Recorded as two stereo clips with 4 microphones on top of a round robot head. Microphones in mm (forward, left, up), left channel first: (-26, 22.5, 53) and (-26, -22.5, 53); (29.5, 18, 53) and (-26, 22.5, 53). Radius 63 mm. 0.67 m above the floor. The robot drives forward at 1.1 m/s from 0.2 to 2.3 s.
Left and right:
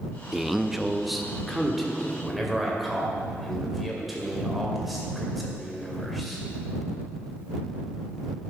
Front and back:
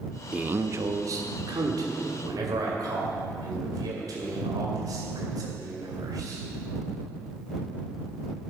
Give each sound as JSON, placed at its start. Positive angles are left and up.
{"t": 0.3, "sound": "a man speaking", "azimuth_deg": -165, "distance_m": 0.5}